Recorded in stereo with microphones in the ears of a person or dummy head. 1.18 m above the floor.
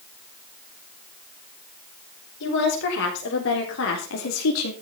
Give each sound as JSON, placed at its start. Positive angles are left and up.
{"t": 2.4, "sound": "a woman speaking", "side_deg": 70, "distance_m": 4.5}